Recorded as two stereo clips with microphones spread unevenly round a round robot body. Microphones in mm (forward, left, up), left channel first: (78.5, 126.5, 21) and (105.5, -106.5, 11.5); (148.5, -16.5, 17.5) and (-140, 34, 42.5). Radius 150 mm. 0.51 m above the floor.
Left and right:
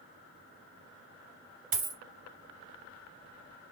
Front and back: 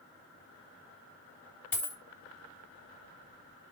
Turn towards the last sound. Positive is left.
turn(degrees=-95)